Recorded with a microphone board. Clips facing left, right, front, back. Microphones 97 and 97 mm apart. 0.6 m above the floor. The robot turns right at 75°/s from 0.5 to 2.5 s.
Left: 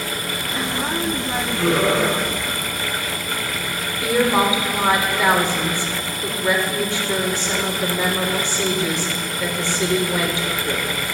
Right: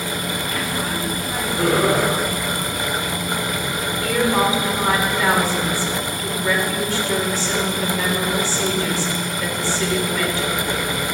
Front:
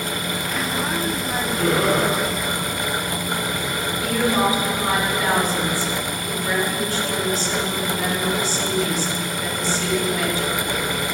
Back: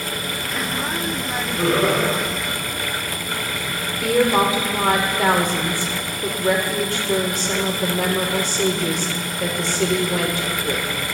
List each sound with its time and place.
1.6 s laughter: 145° right, 4 m; by 2.0 s 110° right, 4 m
4.0 s a woman speaking: 160° left, 1.5 m